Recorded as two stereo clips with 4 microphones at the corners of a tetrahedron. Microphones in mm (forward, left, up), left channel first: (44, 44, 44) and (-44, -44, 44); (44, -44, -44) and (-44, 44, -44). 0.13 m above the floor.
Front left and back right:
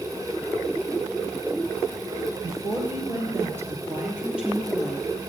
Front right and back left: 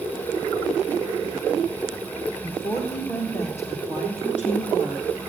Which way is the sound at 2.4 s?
80° right.